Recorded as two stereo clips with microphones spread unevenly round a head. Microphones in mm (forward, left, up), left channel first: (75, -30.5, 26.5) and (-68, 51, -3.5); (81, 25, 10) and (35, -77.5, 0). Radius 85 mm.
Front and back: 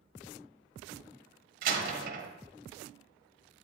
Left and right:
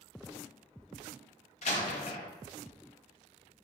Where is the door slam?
115° left, 1.0 m.